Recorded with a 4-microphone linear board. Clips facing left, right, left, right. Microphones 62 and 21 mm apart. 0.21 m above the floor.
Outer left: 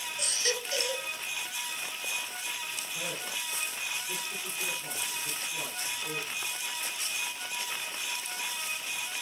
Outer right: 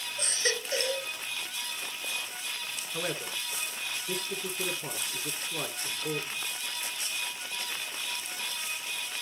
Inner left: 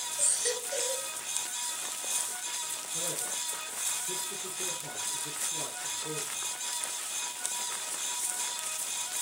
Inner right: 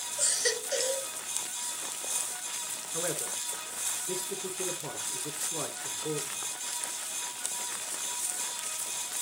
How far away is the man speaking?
About 2.5 m.